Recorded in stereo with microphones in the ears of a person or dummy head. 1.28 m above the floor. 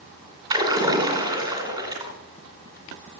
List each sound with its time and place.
0.5 s a splash: 25° right (ahead or behind), 2 m